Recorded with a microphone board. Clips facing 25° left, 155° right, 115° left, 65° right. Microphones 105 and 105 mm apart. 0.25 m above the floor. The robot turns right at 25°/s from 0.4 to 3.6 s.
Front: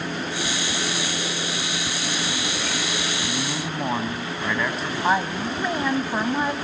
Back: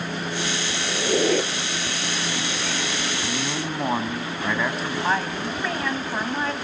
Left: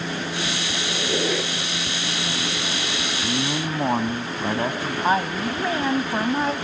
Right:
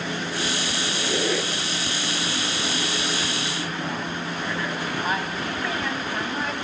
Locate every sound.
0.9 s a squeak: 170° right, 2 m; by 1.5 s 150° right, 2 m
3.2 s a man speaking: 115° left, 1.6 m; by 4.9 s 120° left, 1.6 m
5.0 s a woman speaking: 90° left, 1.2 m